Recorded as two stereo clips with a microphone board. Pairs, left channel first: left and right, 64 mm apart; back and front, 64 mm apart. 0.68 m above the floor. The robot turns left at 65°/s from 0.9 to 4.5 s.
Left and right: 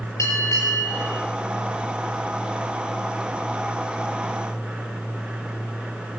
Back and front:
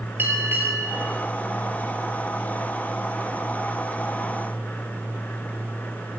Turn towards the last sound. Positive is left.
turn(degrees=-175)